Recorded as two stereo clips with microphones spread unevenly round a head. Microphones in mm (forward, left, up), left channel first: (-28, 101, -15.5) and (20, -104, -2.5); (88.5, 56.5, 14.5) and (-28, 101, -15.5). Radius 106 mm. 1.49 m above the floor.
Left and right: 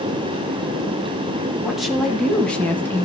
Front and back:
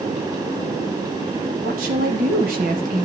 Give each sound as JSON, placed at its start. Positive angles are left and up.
{"t": 1.6, "sound": "a woman speaking", "azimuth_deg": -165, "distance_m": 3.0}